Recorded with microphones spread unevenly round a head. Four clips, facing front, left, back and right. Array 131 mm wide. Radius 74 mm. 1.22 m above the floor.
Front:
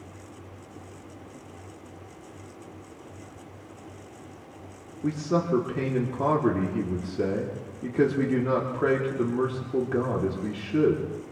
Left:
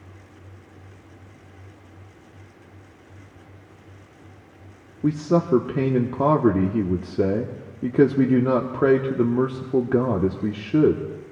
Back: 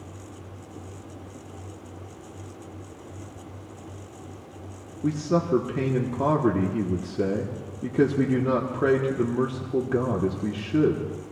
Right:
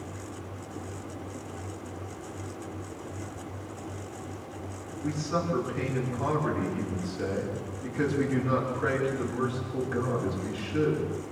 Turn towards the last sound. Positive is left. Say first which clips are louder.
# left 9 dB, back 2 dB
turn(degrees=95)